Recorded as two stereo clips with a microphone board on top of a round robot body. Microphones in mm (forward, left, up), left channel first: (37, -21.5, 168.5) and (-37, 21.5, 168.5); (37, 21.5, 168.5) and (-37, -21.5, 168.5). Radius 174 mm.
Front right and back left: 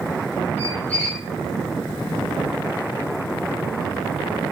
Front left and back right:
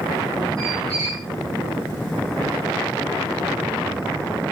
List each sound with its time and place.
0.6 s a squeak: 100° right, 0.6 m